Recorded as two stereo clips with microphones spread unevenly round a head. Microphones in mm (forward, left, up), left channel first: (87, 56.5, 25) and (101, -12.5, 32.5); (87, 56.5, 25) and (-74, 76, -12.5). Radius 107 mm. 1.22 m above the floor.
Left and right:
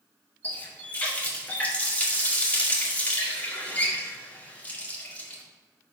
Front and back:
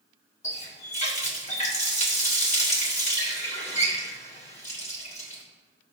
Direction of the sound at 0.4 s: 30° left.